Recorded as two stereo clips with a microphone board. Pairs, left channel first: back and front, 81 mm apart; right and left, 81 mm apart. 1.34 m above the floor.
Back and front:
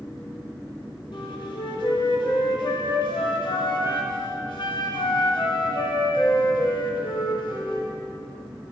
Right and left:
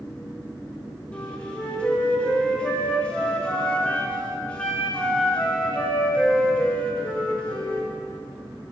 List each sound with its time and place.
1.1 s a flute: 165° right, 1.7 m